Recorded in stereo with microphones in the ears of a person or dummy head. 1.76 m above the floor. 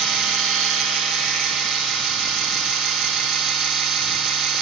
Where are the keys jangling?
I don't hear keys jangling.